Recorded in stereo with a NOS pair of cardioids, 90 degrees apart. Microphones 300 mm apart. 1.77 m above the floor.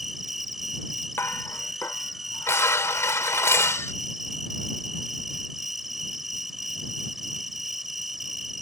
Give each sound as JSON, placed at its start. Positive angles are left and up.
{"t": 0.0, "sound": "an insect", "azimuth_deg": 0}
{"t": 1.2, "sound": "dishes clattering", "azimuth_deg": 10}